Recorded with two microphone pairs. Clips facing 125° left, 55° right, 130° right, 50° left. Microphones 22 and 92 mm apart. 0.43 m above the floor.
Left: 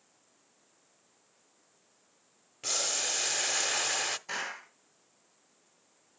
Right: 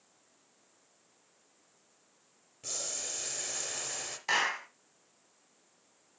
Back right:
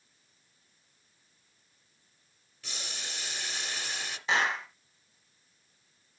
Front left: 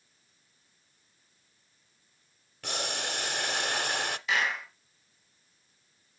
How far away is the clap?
About 3.5 m.